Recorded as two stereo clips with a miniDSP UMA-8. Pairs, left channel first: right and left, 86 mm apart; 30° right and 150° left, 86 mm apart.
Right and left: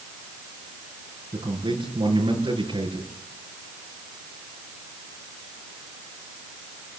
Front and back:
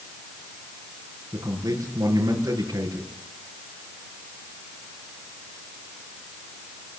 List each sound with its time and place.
1.3 s a man speaking: 100° left, 6 m